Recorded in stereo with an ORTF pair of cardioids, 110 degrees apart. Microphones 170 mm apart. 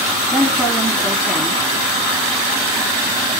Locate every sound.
0.3 s a woman speaking: 5° right, 2.5 m